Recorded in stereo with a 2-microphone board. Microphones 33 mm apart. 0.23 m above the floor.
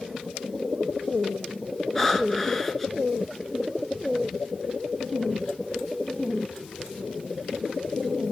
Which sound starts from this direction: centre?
Breathing, at 1.9 s.